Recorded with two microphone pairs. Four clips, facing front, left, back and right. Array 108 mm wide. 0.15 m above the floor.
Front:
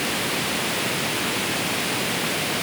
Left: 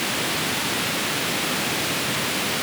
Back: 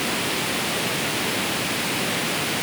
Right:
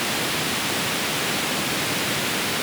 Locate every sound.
Only background noise.